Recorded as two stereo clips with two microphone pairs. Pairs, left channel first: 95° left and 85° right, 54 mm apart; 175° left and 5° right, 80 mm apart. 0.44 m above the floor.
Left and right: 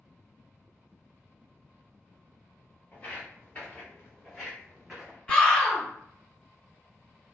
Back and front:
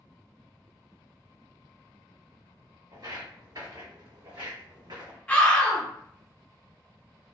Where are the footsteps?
35° left, 2.0 m; by 5.2 s 10° right, 0.9 m.